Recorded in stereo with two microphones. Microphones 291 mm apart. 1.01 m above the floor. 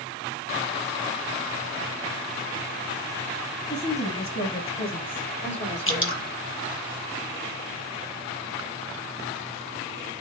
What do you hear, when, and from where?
3.7 s a woman speaking: 50° left (ahead or behind), 5 m; by 6.3 s 30° left (ahead or behind), 3.5 m
5.9 s dripping: 45° left (ahead or behind), 1.3 m